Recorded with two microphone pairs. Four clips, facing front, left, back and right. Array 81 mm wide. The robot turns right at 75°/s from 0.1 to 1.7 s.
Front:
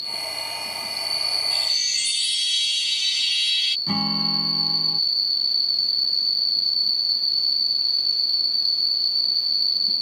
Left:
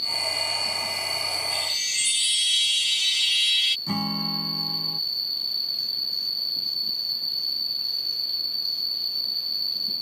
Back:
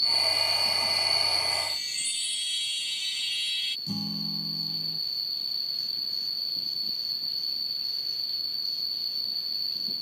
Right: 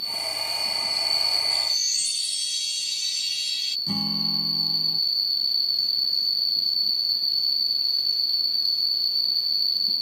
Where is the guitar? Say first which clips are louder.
Even, front 9 dB; 30° left.